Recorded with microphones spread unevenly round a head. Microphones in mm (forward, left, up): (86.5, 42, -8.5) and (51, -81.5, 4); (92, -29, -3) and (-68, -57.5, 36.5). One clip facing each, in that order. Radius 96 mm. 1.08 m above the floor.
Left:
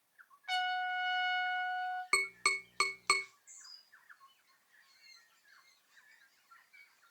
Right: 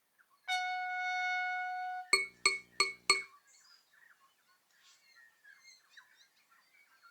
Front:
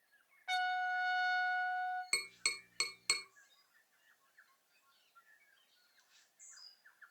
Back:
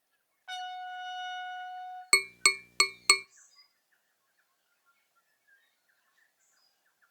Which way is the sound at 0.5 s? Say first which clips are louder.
Left 1 dB, front 3 dB; 65° right.